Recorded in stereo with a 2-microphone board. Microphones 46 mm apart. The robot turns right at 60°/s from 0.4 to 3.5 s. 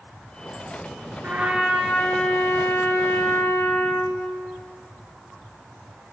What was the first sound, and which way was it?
A trumpet, 40° right.